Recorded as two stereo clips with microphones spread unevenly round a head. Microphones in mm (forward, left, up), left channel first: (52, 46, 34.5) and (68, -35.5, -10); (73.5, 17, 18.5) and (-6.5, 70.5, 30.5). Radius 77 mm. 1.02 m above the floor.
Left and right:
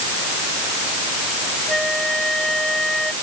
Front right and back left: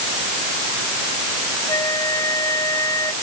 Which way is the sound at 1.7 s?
20° left.